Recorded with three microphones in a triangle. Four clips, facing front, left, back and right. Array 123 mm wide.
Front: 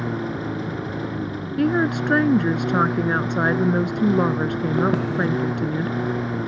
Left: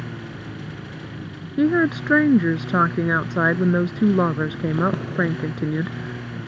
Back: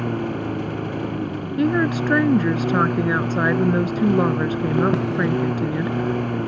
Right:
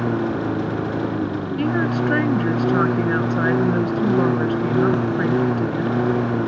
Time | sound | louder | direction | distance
0.0 | a lawn mower | right 14 dB, back 2 dB | 100° right | ?
1.6 | a woman speaking | left 3 dB, back 1 dB | 90° left | ?